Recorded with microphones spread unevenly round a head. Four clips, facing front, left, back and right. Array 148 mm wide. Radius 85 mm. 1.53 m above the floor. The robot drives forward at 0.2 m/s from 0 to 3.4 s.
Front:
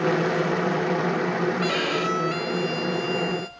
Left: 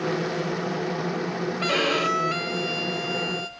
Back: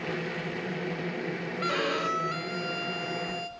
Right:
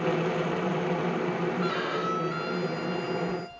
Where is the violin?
100° left, 0.8 m; by 3.5 s 125° left, 0.9 m.